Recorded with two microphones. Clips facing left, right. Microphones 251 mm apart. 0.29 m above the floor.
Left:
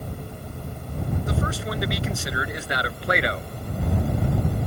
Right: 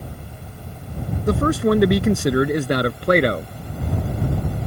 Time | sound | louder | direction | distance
1.3 | a man speaking | right 11 dB | 70° right (ahead or behind) | ?